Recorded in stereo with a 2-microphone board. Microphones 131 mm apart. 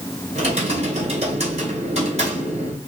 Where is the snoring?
I don't hear snoring.